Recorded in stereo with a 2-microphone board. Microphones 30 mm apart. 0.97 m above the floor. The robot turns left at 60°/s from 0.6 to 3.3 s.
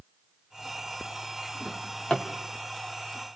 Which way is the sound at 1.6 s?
5° left (ahead or behind).